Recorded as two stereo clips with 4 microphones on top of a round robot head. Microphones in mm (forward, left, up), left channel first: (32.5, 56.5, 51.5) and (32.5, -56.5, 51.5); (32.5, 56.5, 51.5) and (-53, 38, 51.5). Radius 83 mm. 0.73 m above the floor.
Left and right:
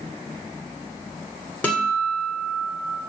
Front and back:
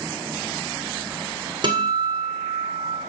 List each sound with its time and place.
1.6 s a guitar: 170° left, 2 m